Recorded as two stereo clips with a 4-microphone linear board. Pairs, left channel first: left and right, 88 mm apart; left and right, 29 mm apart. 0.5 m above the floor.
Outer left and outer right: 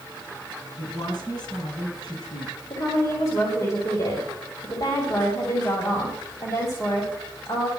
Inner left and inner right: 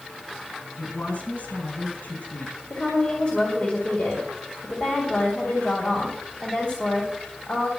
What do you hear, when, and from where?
0.8 s a woman speaking: 55° left (ahead or behind), 4.5 m
2.7 s a woman speaking: 45° left (ahead or behind), 3 m